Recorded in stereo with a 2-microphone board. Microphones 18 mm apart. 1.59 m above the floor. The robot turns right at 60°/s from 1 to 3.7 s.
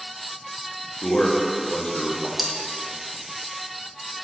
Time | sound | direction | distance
1.0 | a man speaking | 50° left | 1.2 m
2.4 | cutlery clinking | 10° right (ahead or behind) | 0.9 m